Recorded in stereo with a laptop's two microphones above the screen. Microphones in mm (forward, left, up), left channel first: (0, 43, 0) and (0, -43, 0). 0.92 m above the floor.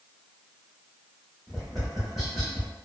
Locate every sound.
1.5 s tapping: centre (ahead or behind), 1.6 m